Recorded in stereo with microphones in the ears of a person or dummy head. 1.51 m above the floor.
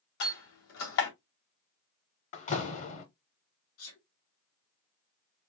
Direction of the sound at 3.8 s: 75° left (ahead or behind).